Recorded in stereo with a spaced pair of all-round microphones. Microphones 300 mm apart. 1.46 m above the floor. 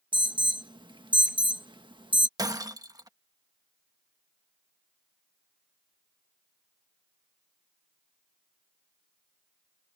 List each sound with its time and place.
0.1 s an alarm: 15° right (ahead or behind)
2.4 s breaking glass: 10° right (ahead or behind)